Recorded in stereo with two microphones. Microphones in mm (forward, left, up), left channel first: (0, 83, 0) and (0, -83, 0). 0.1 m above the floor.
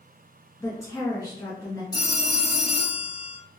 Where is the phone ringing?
25° left (ahead or behind), 1.0 m.